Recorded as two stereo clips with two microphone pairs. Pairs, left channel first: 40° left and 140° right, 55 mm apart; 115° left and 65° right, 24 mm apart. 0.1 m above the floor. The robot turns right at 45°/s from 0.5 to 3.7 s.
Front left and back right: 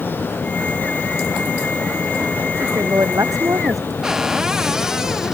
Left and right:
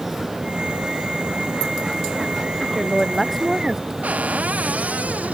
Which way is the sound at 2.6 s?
Straight behind.